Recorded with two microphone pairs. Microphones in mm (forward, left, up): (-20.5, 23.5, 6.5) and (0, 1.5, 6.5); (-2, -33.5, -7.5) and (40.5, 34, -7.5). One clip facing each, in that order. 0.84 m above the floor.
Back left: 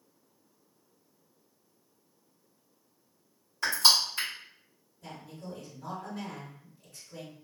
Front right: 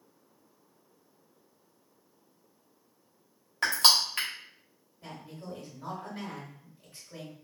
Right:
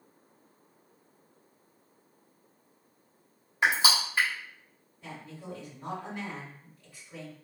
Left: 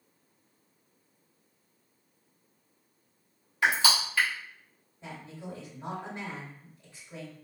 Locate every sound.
3.6 s crushing: 55° right, 1.2 m
5.0 s a woman speaking: straight ahead, 1.8 m